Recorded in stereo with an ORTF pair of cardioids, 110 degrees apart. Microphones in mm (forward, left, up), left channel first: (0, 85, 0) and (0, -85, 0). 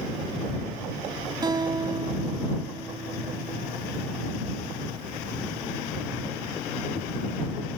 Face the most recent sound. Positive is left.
turn(degrees=-25)